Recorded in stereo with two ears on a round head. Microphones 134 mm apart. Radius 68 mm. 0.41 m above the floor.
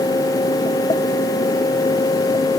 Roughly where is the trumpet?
No trumpet in this recording.